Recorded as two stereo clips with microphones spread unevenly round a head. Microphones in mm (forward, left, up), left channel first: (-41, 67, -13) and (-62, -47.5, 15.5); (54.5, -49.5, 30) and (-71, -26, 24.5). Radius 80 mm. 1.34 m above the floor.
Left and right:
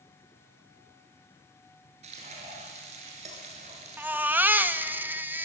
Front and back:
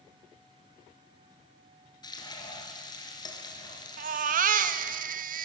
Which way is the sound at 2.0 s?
65° right.